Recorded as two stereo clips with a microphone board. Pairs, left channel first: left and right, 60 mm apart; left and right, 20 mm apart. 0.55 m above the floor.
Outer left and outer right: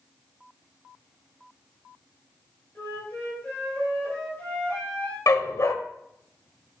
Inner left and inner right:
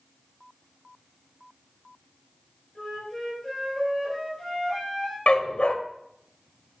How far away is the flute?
About 4.5 m.